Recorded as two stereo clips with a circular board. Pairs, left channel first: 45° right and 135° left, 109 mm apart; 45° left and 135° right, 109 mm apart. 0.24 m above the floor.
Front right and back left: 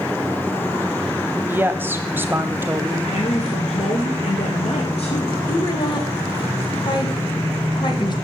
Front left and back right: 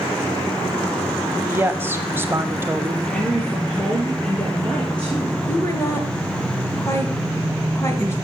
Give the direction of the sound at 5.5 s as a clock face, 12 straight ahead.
12 o'clock.